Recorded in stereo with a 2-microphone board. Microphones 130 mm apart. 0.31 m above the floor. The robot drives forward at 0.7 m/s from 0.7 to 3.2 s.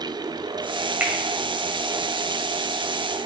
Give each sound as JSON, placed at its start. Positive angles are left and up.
{"t": 1.0, "sound": "a finger snap", "side_deg": -15, "distance_m": 1.6}